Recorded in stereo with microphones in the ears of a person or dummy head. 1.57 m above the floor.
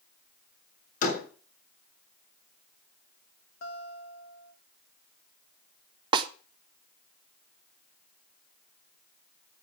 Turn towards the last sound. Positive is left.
turn(degrees=-30)  # may be behind; listen again after turning